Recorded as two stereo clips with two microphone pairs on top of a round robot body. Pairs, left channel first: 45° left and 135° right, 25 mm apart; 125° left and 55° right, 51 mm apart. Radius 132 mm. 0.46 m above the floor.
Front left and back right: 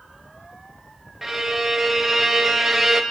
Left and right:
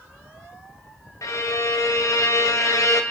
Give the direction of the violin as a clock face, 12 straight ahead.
7 o'clock.